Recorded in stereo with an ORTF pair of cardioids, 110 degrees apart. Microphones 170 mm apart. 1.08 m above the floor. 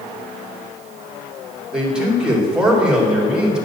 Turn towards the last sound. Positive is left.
turn(degrees=-5)